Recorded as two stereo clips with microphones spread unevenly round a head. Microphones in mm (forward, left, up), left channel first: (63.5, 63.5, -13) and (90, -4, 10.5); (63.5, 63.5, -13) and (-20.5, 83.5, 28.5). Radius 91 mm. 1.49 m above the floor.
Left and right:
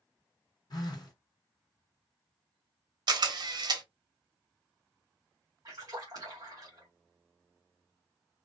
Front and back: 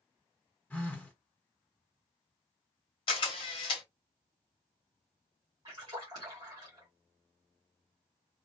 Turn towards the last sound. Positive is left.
turn(degrees=-130)